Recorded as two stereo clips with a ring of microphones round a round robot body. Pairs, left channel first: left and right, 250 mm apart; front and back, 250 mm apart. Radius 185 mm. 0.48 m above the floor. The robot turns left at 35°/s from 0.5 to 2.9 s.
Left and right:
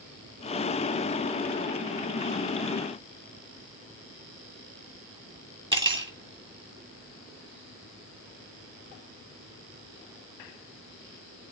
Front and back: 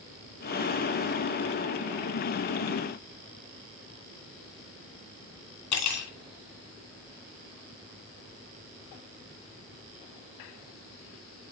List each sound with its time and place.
5.7 s cutlery clinking: 20° right, 3 m